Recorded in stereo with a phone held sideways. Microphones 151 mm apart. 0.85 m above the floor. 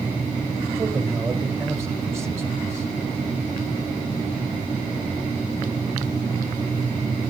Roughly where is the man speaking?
Centre.